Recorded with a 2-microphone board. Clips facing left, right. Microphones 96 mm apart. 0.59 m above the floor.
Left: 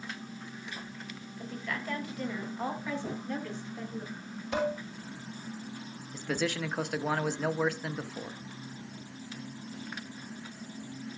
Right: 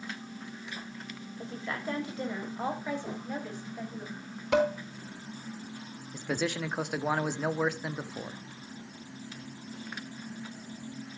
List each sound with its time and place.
1.4 s a woman speaking: 30° right (ahead or behind), 3 m; by 4.0 s 10° right (ahead or behind), 4 m
3.0 s a drawer: 30° left (ahead or behind), 6.5 m
4.5 s dishes clattering: 75° right (ahead or behind), 4.5 m
6.1 s a man speaking: 10° right (ahead or behind), 0.7 m